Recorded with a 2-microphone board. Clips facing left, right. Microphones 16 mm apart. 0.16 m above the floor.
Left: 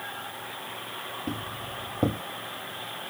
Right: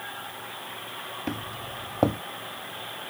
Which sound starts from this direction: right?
Footsteps, at 1.3 s.